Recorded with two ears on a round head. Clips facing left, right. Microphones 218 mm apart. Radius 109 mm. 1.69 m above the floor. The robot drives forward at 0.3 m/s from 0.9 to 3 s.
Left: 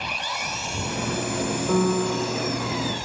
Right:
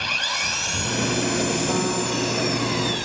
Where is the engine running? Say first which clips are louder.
Even; 20° right (ahead or behind); by 3.0 s 15° right (ahead or behind).